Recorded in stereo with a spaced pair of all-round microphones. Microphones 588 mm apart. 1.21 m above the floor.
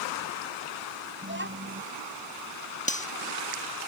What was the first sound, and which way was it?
A child speaking, 20° right (ahead or behind).